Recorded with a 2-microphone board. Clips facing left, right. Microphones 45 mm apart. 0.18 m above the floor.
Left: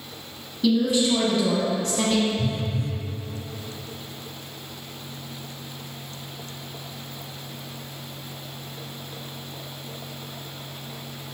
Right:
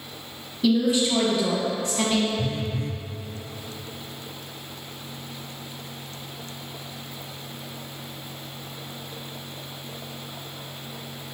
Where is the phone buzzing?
35° right (ahead or behind), 0.5 m.